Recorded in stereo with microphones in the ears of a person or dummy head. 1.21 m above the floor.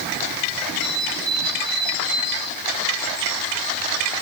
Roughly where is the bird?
Right.